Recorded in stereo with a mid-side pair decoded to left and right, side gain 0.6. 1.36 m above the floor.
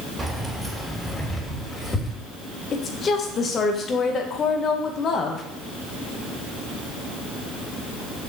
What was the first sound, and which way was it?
Keys jangling, 10° right.